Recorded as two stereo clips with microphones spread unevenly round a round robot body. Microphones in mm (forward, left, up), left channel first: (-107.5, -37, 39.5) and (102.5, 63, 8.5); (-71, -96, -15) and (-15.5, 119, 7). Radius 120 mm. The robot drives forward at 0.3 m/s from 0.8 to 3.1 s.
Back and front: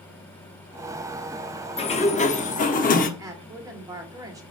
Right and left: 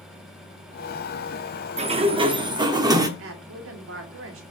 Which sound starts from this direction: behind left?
A sliding door, at 1.8 s.